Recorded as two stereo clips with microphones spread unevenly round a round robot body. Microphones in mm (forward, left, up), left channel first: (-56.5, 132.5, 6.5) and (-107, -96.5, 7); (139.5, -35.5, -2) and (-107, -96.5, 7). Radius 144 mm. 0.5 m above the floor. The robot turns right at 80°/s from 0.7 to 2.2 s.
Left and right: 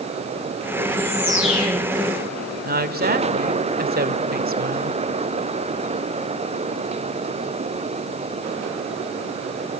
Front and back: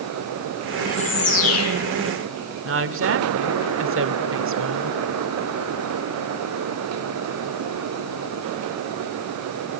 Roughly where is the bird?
Ahead right.